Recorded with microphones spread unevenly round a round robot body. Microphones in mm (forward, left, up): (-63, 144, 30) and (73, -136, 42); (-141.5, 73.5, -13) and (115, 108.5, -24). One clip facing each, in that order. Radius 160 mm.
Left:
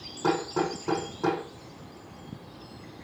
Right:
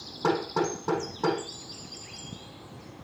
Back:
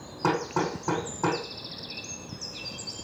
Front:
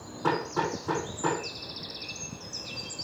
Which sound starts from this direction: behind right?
Hammering, at 0.2 s.